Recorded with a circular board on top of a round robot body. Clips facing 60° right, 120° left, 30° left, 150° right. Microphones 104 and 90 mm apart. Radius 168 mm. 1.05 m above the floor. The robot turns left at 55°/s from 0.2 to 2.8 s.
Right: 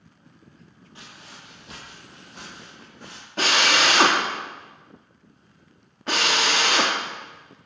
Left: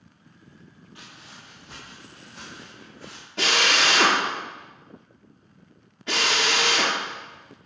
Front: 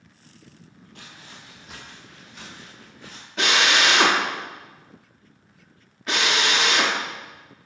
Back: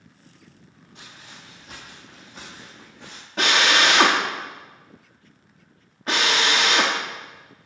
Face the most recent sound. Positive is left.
turn(degrees=-105)